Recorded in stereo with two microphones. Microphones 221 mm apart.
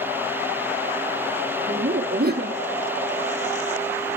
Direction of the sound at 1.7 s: 45° right (ahead or behind).